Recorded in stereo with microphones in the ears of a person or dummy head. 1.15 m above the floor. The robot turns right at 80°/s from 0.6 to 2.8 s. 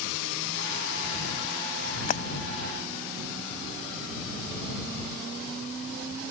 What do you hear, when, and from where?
2.1 s breaking glass: 45° left (ahead or behind); by 2.2 s 30° left (ahead or behind)